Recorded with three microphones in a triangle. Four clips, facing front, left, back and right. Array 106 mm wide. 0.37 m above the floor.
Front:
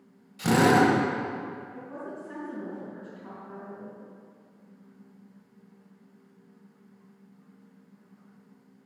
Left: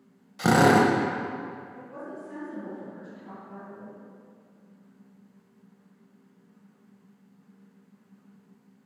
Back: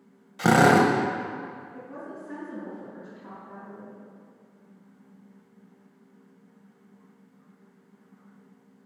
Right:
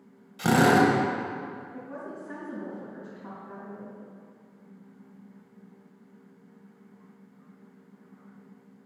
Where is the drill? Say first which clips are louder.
Left 1 dB, back 2 dB; 155° left, 1.1 m.